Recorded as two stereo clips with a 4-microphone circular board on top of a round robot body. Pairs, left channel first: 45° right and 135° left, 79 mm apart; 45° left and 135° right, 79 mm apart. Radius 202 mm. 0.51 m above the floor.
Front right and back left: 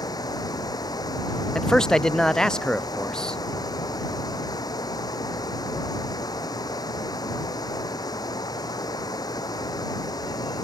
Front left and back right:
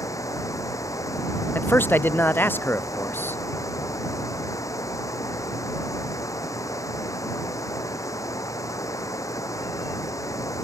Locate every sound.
0.0 s running water: 5° right
1.6 s a man speaking: 25° left